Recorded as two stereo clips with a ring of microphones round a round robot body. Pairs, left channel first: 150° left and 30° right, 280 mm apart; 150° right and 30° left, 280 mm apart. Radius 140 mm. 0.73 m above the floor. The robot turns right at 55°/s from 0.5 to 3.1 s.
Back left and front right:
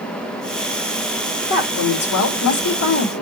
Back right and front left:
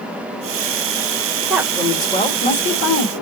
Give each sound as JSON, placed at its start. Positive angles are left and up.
{"t": 1.5, "sound": "a woman speaking", "azimuth_deg": 110, "distance_m": 1.4}